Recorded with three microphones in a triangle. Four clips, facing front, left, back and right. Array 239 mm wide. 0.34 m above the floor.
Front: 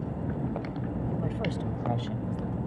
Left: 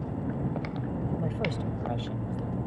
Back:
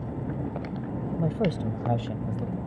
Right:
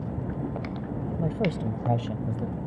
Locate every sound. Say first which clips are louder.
1.2 s a woman speaking: right 4 dB, back 5 dB; 155° right; by 2.6 s 110° right